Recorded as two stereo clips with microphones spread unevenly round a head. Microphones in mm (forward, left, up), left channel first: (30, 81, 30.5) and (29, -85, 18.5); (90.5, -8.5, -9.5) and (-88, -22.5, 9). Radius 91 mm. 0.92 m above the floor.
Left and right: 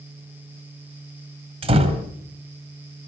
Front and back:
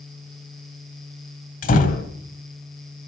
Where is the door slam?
35° right, 3.5 m.